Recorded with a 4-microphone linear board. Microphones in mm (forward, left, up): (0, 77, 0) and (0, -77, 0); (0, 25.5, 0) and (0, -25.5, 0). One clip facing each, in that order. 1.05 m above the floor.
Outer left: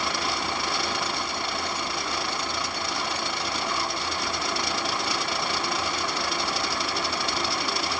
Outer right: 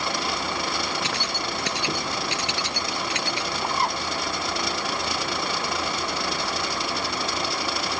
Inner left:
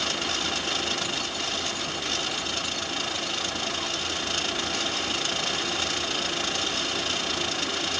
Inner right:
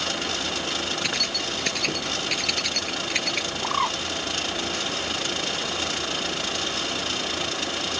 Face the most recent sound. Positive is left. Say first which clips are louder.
# outer right 6 dB, inner right 6 dB
turn(degrees=-65)  # may be behind; listen again after turning